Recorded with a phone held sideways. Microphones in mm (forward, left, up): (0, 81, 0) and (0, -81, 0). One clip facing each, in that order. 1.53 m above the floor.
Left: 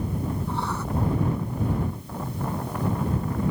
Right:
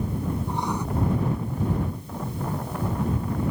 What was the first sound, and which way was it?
Writing, 15° right (ahead or behind).